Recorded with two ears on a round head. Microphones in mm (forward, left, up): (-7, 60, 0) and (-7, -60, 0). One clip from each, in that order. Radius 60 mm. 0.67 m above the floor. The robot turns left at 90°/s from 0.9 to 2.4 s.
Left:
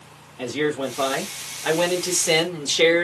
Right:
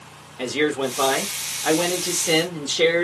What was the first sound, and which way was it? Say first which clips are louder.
A man speaking: right 2 dB; 145° right.